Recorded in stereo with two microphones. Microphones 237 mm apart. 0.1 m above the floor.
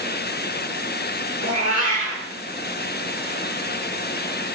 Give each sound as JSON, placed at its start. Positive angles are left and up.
{"t": 1.4, "sound": "a cat meowing", "side_deg": -35, "distance_m": 8.0}